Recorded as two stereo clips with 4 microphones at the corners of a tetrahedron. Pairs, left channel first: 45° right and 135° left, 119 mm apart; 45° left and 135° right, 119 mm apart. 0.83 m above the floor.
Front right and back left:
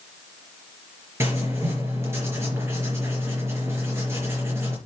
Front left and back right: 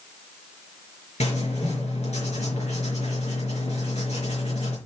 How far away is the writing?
About 4.5 m.